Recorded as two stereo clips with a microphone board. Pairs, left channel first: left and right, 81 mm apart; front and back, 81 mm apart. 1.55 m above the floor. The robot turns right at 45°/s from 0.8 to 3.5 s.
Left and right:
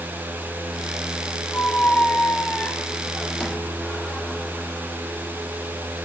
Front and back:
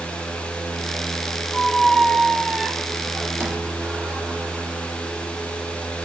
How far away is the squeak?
About 0.5 m.